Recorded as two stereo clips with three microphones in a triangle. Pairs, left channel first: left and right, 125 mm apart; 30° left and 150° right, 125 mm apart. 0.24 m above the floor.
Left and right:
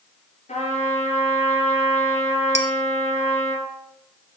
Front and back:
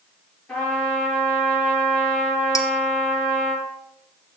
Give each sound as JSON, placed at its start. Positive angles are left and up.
{"t": 0.5, "sound": "a trumpet", "azimuth_deg": 110, "distance_m": 5.0}
{"t": 2.5, "sound": "dishes clattering", "azimuth_deg": 85, "distance_m": 1.3}